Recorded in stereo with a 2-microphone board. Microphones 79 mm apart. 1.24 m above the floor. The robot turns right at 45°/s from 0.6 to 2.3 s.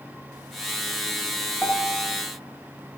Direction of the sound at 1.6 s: 20° left (ahead or behind).